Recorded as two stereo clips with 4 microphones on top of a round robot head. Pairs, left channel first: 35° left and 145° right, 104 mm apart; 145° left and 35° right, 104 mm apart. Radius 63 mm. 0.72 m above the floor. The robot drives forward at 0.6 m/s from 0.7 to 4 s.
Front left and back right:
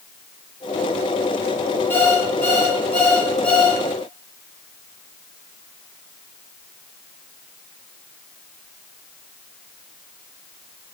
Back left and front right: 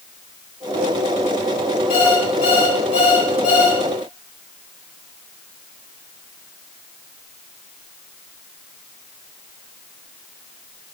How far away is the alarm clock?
About 6.5 m.